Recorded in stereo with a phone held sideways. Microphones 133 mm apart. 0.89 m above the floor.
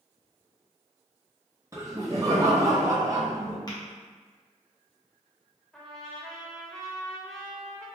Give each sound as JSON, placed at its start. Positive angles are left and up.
{"t": 1.7, "sound": "laughter", "side_deg": -25, "distance_m": 0.8}
{"t": 3.7, "sound": "tapping", "side_deg": 30, "distance_m": 0.9}
{"t": 5.7, "sound": "a trumpet", "side_deg": 5, "distance_m": 0.7}